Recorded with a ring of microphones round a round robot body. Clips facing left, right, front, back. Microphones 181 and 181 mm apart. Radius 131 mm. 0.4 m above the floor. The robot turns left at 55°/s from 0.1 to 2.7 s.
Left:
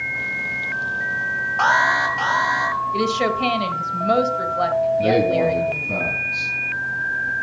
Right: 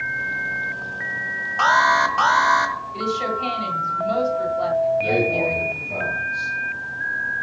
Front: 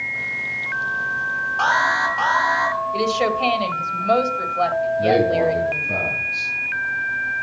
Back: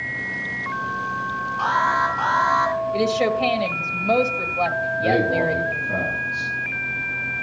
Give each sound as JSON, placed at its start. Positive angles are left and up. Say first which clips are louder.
{"t": 1.6, "sound": "an alarm", "louder": "right 1 dB, front 1 dB", "azimuth_deg": -35, "distance_m": 1.9}
{"t": 2.9, "sound": "a woman speaking", "louder": "left 4 dB, even", "azimuth_deg": 95, "distance_m": 1.8}
{"t": 5.0, "sound": "a man speaking", "louder": "left 4 dB, front 2 dB", "azimuth_deg": 85, "distance_m": 5.5}